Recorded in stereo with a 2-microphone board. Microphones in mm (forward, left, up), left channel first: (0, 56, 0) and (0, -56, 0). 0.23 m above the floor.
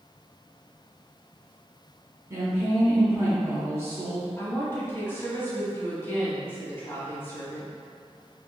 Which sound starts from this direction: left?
A woman speaking, at 4.4 s.